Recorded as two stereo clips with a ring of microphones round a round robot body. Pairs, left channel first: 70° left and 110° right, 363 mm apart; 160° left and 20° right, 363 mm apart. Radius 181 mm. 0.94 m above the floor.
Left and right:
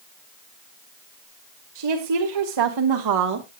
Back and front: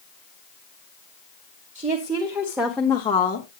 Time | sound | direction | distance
1.8 | a woman speaking | 95° right | 2 m